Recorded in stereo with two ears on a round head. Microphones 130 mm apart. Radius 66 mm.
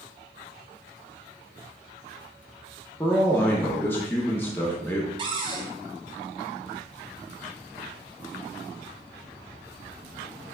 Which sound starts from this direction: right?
A cupboard door, at 5.2 s.